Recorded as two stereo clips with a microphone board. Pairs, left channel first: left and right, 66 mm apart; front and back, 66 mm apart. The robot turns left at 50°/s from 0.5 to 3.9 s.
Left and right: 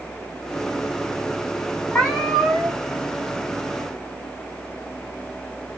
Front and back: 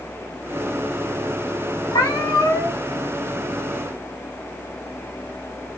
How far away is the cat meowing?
About 1.9 m.